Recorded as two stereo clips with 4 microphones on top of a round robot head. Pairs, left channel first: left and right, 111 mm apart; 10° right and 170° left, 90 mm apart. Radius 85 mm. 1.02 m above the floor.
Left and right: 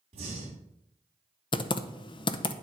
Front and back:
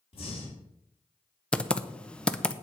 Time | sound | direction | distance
0.1 | breathing | 45° right | 2 m
1.5 | typing on a keyboard | 65° left | 0.8 m